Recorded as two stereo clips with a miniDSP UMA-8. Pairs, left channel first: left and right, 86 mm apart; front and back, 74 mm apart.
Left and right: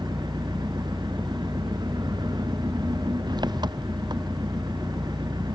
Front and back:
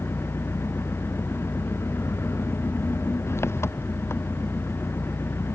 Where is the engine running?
55° right.